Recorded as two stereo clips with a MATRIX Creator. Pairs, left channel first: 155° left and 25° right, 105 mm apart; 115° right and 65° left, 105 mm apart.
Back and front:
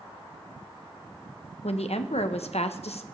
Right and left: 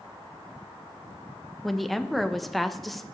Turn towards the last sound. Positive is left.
turn(degrees=160)